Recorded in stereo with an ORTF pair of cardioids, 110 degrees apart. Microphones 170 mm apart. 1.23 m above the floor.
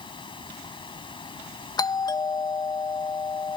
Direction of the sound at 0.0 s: 30° left.